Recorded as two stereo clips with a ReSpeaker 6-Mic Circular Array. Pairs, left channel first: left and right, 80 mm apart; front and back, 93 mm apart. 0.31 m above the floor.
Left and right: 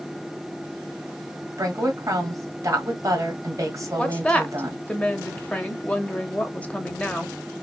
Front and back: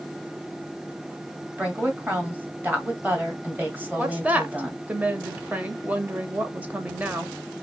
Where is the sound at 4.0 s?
135° left, 0.9 m.